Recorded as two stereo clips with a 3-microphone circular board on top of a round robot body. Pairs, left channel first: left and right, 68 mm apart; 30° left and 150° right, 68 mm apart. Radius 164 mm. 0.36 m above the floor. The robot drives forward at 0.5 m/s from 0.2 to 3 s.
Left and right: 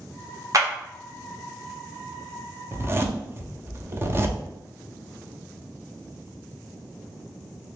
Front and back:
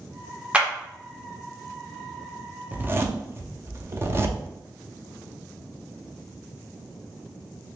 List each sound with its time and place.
0.5 s a clap: 80° right, 1.4 m
2.7 s a zipper: 100° right, 0.8 m; by 4.4 s 120° right, 0.8 m